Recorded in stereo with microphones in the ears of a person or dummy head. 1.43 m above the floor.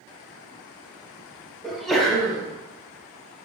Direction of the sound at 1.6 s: Centre (ahead or behind).